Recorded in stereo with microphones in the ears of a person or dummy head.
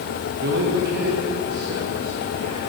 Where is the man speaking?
55° right (ahead or behind), 1.0 m; by 2.6 s 45° right (ahead or behind), 3.5 m.